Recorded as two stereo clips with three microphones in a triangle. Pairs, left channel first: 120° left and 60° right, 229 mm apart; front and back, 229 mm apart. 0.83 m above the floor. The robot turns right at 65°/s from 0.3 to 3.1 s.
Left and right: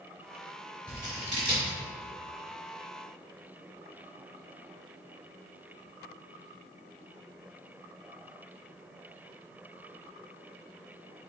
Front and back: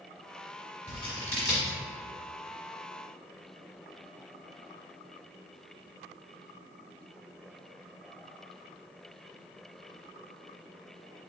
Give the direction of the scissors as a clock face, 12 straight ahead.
11 o'clock.